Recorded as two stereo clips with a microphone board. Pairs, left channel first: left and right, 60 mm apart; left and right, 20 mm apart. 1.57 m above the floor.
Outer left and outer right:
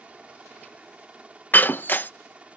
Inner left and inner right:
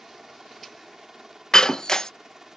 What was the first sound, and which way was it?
A helicopter, 20° right (ahead or behind).